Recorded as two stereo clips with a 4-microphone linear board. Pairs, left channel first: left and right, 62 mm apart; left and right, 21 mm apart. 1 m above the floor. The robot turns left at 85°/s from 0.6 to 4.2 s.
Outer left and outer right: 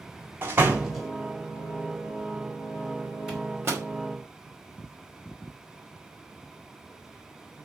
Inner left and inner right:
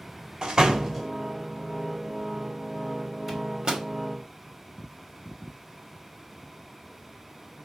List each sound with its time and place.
0.4 s a door slam: 35° right (ahead or behind), 2.0 m; by 1.1 s 5° left (ahead or behind), 2.0 m
3.3 s a microwave: 10° right (ahead or behind), 2.5 m; by 3.9 s 60° right (ahead or behind), 2.5 m